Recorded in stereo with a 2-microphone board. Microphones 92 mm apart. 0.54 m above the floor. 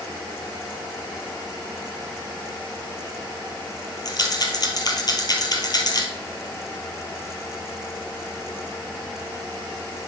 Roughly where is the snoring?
No snoring in this recording.